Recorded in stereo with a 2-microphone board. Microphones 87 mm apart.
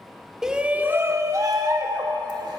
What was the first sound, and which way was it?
A shout, 5° right (ahead or behind).